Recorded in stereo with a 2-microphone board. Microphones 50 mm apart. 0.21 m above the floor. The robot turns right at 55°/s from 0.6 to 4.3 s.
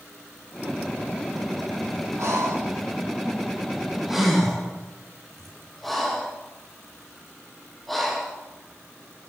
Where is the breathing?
65° right (ahead or behind), 4 m; by 8.4 s 5° left (ahead or behind), 4 m.